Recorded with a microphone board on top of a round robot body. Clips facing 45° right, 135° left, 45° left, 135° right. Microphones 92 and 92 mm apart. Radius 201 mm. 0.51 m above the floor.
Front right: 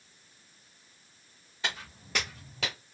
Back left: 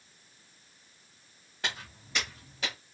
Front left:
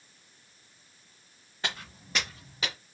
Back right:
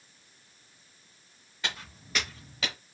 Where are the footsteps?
95° left, 0.5 m; by 2.8 s 35° right, 0.9 m.